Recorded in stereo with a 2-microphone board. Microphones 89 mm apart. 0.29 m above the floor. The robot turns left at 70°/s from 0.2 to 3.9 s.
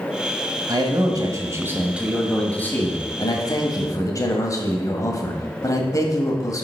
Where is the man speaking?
75° right, 1.5 m; by 6.6 s 60° left, 1.5 m.